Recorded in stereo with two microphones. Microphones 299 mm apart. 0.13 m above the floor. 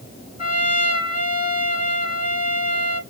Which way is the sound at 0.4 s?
15° right (ahead or behind).